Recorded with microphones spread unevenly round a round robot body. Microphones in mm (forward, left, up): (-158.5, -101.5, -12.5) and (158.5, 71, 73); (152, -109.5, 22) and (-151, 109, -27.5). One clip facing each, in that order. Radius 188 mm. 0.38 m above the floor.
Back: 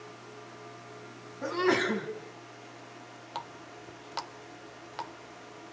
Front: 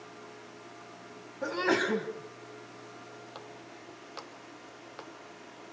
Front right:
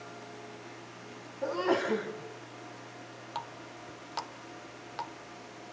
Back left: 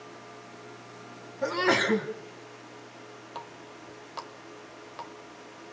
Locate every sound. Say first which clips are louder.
1.4 s a sneeze: back 2 dB, back left 2 dB; 120° left, 3 m
3.4 s a running tap: back 1 dB, even; 115° right, 0.8 m